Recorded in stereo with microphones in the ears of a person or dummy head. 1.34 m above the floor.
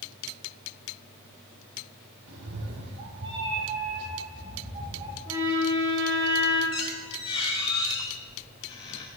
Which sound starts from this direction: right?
A cat meowing, at 2.3 s.